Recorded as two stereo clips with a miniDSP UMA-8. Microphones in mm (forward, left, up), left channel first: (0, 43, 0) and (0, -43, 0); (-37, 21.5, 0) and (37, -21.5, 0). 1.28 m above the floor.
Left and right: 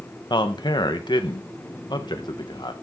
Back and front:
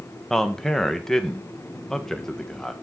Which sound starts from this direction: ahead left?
A man speaking, at 0.3 s.